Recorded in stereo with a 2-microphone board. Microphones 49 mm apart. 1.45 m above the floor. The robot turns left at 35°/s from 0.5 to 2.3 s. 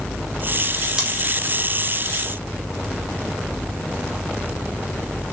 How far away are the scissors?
About 0.9 m.